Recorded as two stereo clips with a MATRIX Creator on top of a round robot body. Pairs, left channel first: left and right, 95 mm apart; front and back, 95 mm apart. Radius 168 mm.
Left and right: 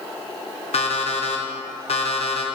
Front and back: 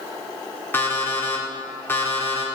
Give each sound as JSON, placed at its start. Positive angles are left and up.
{"t": 0.7, "sound": "an alarm clock", "azimuth_deg": 70, "distance_m": 1.5}